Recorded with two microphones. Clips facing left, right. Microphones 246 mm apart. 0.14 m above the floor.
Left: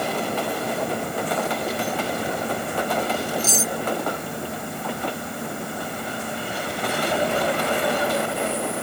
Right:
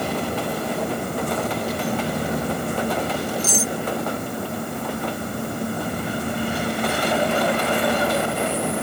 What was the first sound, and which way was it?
Cutlery clinking, 10° right (ahead or behind).